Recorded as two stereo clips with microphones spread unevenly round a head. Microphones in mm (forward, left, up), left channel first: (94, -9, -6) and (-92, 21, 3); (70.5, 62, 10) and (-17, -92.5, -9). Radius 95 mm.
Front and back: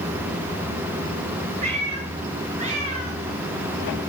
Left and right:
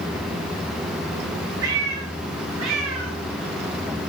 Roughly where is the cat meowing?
Behind right.